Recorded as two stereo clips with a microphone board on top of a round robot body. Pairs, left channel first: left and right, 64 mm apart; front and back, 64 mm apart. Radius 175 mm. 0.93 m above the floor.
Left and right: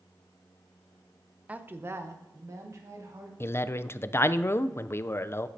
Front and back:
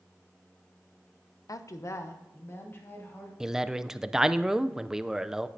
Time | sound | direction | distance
1.5 | a woman speaking | 20° right | 0.6 m
3.4 | a man speaking | 105° left | 0.5 m